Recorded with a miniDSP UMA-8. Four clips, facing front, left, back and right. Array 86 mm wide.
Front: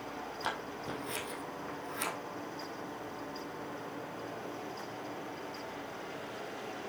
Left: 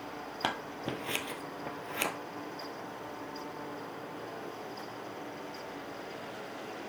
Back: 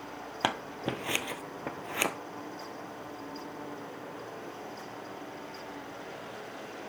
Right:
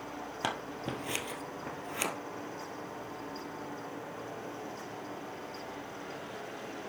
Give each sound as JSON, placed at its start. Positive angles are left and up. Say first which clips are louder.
{"t": 0.4, "sound": "scissors", "louder": "left 1 dB, back 8 dB", "azimuth_deg": 175, "distance_m": 1.3}